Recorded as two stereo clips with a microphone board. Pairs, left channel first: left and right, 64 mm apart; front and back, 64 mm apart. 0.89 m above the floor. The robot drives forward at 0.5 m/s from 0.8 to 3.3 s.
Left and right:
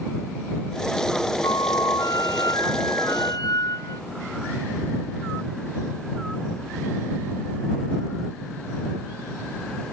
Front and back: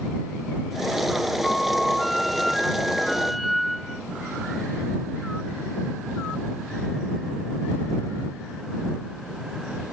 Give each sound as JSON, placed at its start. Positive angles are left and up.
{"t": 1.4, "sound": "a flute", "azimuth_deg": 85}